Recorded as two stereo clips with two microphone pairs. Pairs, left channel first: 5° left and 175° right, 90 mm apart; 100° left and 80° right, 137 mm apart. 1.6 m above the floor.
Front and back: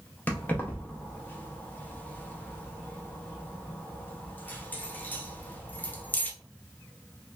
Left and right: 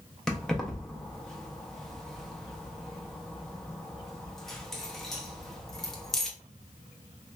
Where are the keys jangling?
25° left, 0.5 m.